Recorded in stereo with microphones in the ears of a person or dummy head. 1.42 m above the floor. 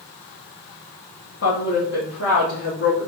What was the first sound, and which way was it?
A woman speaking, 75° left (ahead or behind).